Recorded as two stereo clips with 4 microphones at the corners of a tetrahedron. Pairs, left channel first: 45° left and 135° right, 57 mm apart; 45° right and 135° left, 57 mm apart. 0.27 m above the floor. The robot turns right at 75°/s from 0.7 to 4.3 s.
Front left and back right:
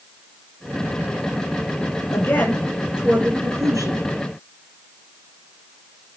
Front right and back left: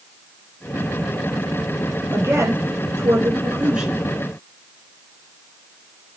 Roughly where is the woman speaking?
Left.